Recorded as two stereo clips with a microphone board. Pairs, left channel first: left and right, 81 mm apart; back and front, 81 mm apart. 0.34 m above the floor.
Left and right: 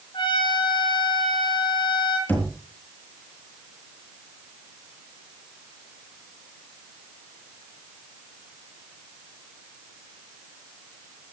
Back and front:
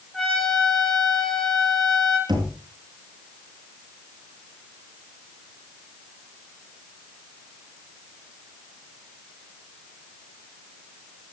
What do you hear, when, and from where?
0.1 s a trumpet: 95° left, 6 m
2.3 s knocking: 25° left, 4.5 m